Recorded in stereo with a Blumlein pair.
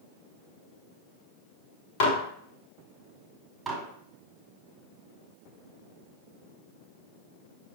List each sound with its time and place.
2.0 s dishes clattering: 45° left, 1.0 m
3.7 s dishes clattering: 10° right, 1.5 m